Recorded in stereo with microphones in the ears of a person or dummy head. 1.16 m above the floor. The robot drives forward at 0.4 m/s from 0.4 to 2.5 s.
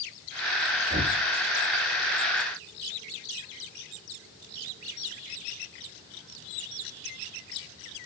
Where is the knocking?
65° right (ahead or behind), 1.8 m; by 1.2 s 70° right (ahead or behind), 1.8 m.